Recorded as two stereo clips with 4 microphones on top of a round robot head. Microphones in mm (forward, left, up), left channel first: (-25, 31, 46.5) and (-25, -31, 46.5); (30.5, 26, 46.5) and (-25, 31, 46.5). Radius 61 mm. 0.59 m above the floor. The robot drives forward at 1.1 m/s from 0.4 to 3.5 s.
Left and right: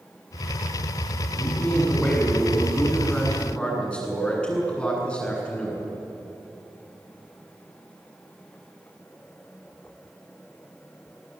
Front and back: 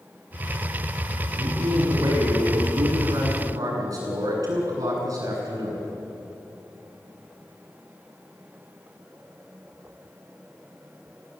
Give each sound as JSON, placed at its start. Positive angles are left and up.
{"t": 1.3, "sound": "a man speaking", "azimuth_deg": 160, "distance_m": 7.0}